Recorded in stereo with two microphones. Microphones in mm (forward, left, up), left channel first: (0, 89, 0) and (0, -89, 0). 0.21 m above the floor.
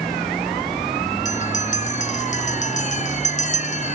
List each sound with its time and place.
1.2 s a bell: 45° left (ahead or behind)